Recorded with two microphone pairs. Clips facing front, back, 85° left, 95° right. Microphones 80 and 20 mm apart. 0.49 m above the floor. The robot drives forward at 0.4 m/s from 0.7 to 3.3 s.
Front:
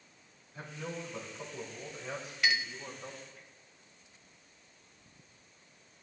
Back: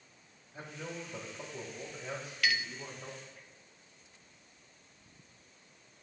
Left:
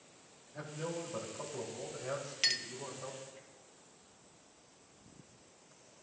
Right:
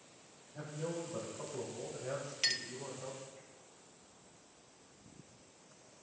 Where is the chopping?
I don't hear chopping.